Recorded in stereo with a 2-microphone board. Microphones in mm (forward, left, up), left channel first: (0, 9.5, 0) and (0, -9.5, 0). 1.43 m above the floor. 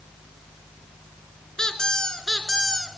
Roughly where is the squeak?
Left.